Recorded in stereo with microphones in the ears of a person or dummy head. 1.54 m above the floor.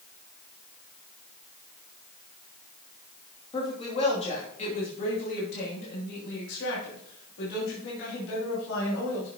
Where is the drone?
No drone in this recording.